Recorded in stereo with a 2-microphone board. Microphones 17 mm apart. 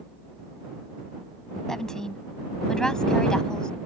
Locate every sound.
1.7 s a woman speaking: 25° left (ahead or behind); by 3.7 s 40° left (ahead or behind)